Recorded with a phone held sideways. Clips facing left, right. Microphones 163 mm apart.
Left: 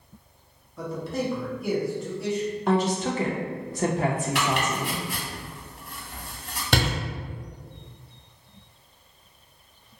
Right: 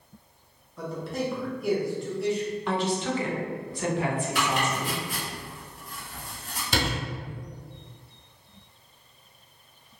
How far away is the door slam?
About 1.1 m.